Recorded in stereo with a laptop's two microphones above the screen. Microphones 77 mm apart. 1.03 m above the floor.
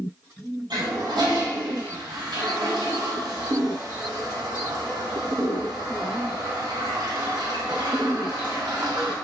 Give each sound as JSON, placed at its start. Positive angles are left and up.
{"t": 0.7, "sound": "a toilet flushing", "side_deg": -75, "distance_m": 1.4}